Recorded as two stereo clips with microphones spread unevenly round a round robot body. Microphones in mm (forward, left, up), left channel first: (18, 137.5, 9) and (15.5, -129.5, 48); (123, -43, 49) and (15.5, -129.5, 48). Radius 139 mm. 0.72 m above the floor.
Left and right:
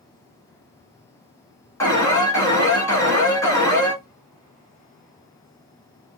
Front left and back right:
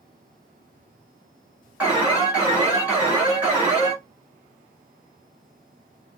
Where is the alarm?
145° left, 1.8 m.